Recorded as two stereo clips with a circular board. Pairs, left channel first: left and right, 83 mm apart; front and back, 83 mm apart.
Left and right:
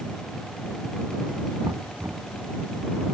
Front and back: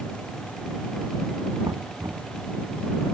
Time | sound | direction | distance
1.6 | knocking | 140° right | ?